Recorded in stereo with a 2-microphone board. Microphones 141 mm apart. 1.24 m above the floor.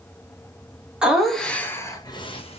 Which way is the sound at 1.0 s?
5° right (ahead or behind).